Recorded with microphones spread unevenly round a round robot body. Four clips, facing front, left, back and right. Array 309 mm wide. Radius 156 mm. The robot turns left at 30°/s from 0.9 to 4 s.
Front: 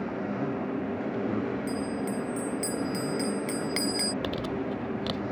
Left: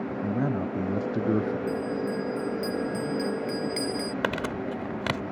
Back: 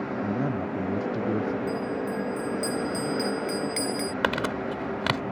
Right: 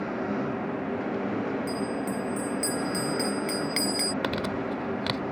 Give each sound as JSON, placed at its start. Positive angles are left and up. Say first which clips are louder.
{"t": 0.2, "sound": "a man speaking", "louder": "left 5 dB, back 4 dB", "azimuth_deg": 110}
{"t": 1.7, "sound": "a bell", "louder": "left 1 dB, back 2 dB", "azimuth_deg": 15}
{"t": 4.2, "sound": "crumpling", "louder": "even, back 4 dB", "azimuth_deg": 150}